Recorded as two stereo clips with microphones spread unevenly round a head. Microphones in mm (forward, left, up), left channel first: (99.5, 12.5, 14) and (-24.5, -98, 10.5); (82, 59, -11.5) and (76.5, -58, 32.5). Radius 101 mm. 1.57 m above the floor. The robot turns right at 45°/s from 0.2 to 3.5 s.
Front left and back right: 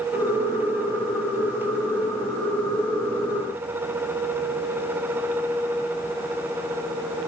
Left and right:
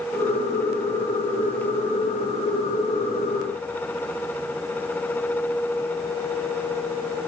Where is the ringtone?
I don't hear a ringtone.